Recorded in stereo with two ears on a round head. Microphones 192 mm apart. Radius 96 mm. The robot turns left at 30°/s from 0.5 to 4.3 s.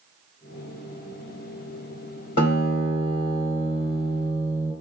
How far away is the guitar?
About 2.5 m.